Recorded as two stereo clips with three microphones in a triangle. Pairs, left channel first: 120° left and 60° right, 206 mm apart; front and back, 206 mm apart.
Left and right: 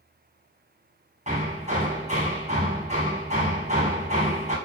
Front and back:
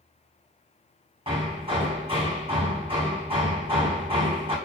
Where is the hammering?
115° right, 2.5 m.